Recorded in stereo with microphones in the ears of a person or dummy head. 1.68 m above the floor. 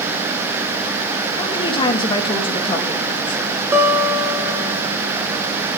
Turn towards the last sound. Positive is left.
turn(degrees=-15)  # may be behind; listen again after turning